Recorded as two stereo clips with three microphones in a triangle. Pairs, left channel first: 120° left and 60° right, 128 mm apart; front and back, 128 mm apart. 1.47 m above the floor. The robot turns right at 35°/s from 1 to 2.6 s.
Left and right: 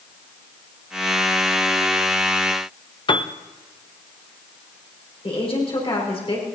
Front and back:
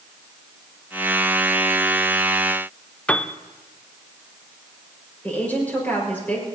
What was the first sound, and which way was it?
A piano, 80° left.